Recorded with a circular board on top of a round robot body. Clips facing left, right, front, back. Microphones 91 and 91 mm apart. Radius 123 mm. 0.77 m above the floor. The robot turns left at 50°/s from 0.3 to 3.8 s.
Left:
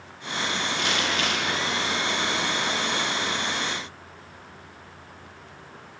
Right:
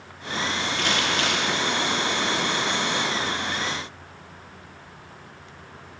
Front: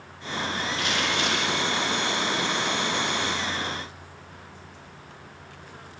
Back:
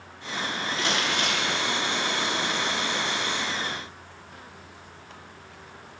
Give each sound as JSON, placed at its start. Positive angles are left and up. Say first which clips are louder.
{"t": 0.8, "sound": "crumpling", "louder": "right 3 dB, back 1 dB", "azimuth_deg": -125, "distance_m": 6.5}